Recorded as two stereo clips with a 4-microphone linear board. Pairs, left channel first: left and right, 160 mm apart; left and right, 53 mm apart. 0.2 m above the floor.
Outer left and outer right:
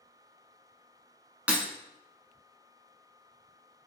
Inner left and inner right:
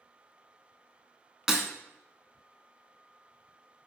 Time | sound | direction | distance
1.5 | breaking glass | 10° right (ahead or behind) | 0.7 m